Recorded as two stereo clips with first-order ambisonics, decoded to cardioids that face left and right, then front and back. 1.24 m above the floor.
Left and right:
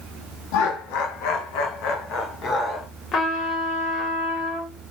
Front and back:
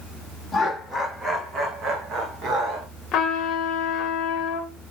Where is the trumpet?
45° left, 1.1 m.